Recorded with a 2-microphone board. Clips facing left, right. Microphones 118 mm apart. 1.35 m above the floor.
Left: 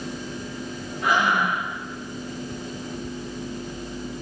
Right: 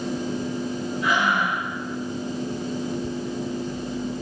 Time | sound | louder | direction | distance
1.0 | breathing | left 2 dB | 50° left (ahead or behind) | 3 m